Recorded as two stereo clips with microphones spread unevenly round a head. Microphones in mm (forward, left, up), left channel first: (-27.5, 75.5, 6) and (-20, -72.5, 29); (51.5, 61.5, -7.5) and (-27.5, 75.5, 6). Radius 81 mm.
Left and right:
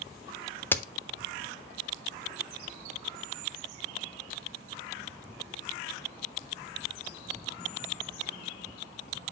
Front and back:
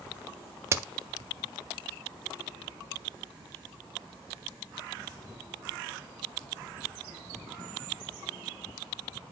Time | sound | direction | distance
0.7 | a crack | 135° left | 0.5 m